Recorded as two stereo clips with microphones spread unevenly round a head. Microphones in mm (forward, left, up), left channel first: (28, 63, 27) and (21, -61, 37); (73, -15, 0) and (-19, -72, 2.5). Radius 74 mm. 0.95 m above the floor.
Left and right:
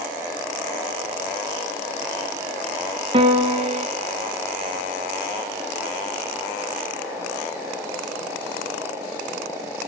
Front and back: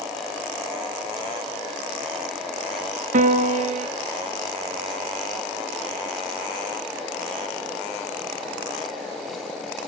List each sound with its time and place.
3.1 s a piano: 145° right, 1.0 m